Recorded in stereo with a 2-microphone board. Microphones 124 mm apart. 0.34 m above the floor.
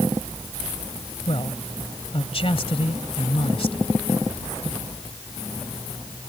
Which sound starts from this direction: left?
A man speaking, at 1.3 s.